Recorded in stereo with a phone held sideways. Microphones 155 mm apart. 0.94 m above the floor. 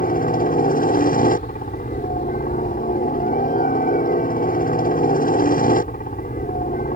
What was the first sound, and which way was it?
A helicopter, 65° left (ahead or behind).